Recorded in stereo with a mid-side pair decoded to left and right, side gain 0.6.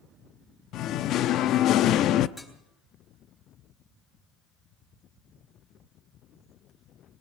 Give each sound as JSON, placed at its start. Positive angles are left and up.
{"t": 0.7, "sound": "singing", "azimuth_deg": 60, "distance_m": 0.8}
{"t": 2.4, "sound": "dishes clattering", "azimuth_deg": 5, "distance_m": 6.5}